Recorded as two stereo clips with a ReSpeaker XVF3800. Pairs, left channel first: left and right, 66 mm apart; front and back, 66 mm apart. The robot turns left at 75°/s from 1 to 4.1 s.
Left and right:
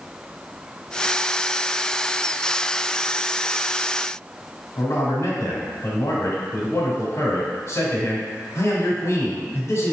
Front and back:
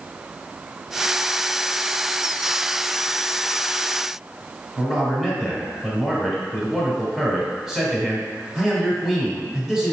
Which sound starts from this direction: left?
A man speaking, at 4.8 s.